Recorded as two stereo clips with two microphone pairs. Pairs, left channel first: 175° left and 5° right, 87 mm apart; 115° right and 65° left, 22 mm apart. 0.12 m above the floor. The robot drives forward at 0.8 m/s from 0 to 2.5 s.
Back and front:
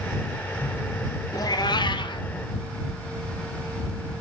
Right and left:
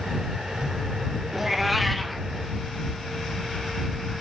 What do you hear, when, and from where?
1.3 s a cat meowing: 135° left, 0.9 m; by 2.3 s 155° left, 1.5 m